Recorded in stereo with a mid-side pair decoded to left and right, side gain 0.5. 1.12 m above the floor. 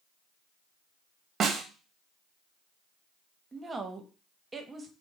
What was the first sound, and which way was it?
A snare drum, 45° right.